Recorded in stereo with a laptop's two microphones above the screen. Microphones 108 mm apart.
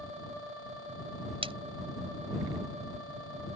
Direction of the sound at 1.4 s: 60° right (ahead or behind).